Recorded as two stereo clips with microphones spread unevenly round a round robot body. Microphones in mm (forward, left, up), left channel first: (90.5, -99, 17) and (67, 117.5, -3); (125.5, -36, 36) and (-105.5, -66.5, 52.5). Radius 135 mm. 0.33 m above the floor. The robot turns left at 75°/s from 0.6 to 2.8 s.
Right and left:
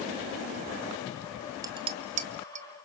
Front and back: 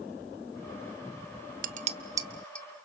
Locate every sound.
1.6 s dishes clattering: 155° left, 0.7 m; by 2.7 s 75° left, 0.7 m